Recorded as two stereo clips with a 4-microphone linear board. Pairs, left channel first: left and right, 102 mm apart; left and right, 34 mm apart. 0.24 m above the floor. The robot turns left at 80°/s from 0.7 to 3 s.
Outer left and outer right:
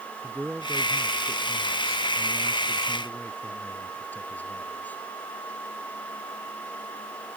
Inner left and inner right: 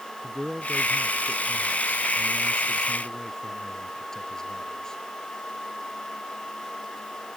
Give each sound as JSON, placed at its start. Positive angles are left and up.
{"t": 0.2, "sound": "a man speaking", "azimuth_deg": -10}